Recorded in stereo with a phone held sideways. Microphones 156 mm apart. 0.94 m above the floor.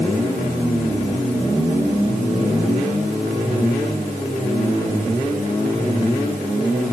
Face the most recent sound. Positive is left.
No sound to turn to.